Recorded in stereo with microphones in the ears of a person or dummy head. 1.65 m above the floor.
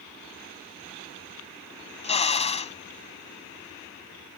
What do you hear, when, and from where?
2.0 s a drill: 30° left (ahead or behind)